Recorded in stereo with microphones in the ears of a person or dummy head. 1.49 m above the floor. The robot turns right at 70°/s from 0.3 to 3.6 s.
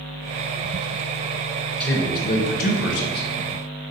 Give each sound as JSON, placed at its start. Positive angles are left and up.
{"t": 1.8, "sound": "a man speaking", "azimuth_deg": 5, "distance_m": 0.7}